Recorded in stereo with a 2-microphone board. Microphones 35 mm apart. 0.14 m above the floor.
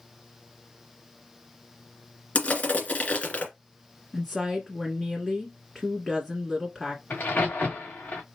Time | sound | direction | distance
2.4 | crushing | 40° left (ahead or behind) | 2.0 m
4.1 | a woman speaking | centre (ahead or behind) | 1.3 m
7.1 | a crack | 65° left (ahead or behind) | 2.5 m